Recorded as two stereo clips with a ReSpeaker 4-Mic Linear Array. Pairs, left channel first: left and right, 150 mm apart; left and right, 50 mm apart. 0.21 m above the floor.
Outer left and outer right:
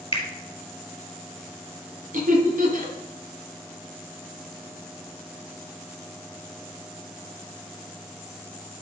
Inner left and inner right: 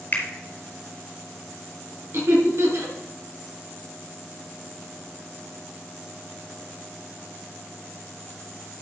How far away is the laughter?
About 3.5 m.